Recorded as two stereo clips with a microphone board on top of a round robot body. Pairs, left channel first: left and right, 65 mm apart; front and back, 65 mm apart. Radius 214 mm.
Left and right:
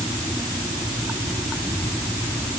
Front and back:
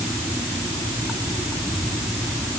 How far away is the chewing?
I don't hear chewing.